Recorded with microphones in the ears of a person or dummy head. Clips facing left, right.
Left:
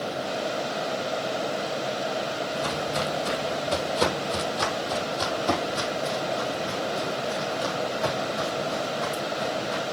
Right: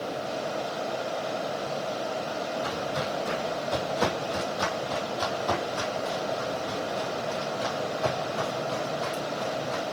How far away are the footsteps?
About 3 m.